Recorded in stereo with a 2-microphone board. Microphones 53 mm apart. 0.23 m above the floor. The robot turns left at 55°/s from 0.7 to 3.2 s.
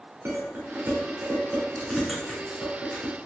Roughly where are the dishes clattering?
Right.